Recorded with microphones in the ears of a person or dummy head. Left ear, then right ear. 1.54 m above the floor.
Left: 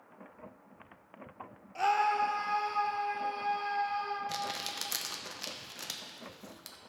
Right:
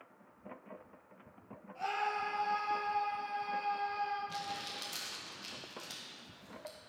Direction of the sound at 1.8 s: 60° left (ahead or behind).